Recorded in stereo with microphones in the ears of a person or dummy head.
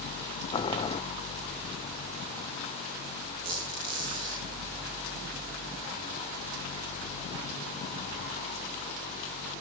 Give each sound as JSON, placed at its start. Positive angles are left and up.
{"t": 0.5, "sound": "boiling", "side_deg": 25, "distance_m": 0.6}
{"t": 3.4, "sound": "a squeak", "side_deg": -15, "distance_m": 9.0}